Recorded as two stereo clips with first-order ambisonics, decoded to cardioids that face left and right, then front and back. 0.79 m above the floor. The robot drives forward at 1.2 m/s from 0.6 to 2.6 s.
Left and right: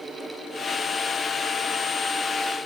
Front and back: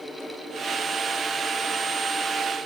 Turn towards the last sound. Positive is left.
No sound to turn to.